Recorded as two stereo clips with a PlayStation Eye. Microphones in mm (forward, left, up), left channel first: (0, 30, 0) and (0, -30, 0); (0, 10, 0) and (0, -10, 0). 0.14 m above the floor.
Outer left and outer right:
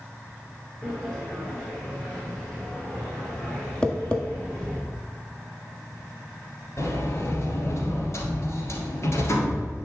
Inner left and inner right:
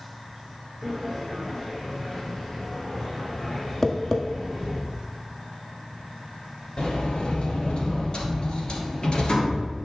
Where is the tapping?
15° left (ahead or behind), 1.4 m.